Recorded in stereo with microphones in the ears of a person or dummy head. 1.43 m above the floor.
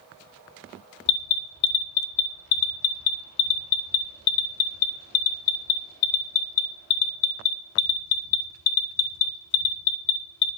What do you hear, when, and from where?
1.1 s an alarm: 55° left (ahead or behind), 0.6 m